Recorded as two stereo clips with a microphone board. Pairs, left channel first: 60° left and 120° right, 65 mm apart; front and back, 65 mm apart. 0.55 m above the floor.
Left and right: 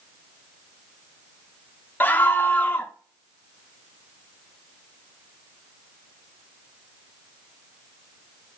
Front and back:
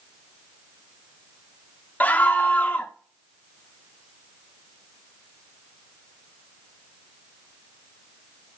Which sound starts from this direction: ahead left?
A scream, at 2.0 s.